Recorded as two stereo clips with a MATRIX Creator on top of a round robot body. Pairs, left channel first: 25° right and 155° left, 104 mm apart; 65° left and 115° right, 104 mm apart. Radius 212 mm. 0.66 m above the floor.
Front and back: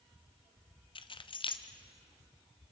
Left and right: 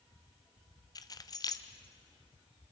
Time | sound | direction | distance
0.9 | keys jangling | 15° left | 0.9 m